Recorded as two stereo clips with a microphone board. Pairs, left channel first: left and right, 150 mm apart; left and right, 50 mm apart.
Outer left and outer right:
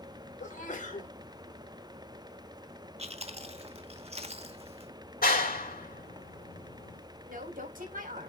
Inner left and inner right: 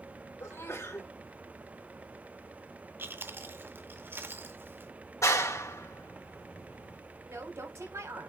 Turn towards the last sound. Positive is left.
turn(degrees=-70)  # may be behind; listen again after turning